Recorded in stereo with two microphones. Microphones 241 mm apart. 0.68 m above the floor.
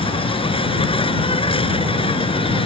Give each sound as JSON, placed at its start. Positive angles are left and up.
{"t": 0.0, "sound": "an insect", "side_deg": 20}